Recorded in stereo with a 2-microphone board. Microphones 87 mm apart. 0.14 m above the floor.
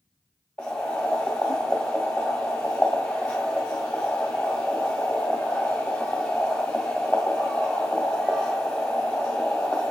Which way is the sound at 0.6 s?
10° left (ahead or behind).